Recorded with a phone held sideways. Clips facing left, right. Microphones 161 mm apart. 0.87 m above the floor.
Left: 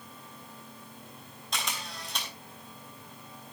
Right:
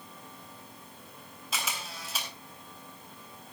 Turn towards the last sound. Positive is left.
turn(degrees=-5)  # may be behind; listen again after turning